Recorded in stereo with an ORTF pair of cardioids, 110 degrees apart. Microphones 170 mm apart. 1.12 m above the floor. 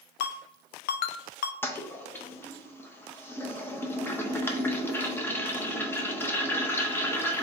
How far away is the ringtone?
About 0.5 m.